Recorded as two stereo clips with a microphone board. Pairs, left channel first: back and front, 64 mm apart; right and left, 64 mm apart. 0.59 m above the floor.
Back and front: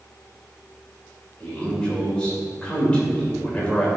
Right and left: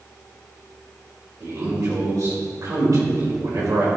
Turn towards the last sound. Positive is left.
turn(degrees=105)